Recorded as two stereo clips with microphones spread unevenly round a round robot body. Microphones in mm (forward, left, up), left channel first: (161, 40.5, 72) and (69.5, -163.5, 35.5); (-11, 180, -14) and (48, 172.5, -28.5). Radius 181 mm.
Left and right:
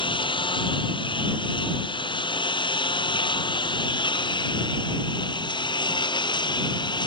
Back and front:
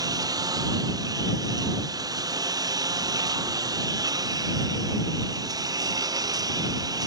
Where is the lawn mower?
Straight ahead; by 7.1 s 5° right.